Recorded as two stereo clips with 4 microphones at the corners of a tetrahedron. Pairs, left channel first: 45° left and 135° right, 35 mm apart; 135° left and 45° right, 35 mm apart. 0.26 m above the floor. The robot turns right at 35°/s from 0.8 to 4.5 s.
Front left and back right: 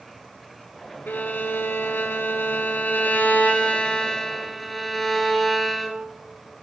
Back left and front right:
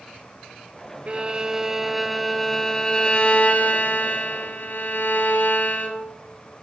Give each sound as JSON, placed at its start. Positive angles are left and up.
{"t": 1.1, "sound": "a violin", "azimuth_deg": 10, "distance_m": 1.5}